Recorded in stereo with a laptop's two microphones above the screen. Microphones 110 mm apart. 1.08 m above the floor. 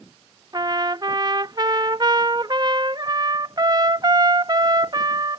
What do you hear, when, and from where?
0.5 s a trumpet: 40° right (ahead or behind)